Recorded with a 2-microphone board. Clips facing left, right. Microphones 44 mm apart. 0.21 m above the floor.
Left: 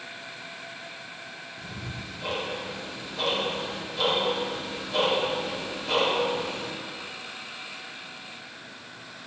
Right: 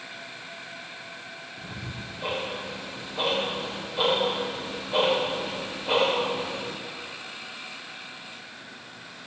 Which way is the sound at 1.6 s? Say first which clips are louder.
Even; 25° right (ahead or behind).